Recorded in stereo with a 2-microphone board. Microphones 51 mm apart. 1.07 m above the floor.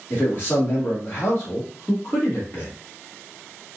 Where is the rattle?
I don't hear a rattle.